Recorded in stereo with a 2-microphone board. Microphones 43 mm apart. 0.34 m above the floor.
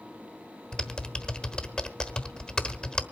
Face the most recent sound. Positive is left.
turn(degrees=20)  # may be behind; listen again after turning